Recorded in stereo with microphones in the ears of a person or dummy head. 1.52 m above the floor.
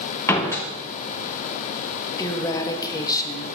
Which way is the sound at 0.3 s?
20° left (ahead or behind).